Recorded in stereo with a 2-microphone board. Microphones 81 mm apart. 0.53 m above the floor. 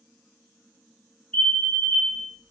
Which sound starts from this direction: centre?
A fire alarm, at 1.3 s.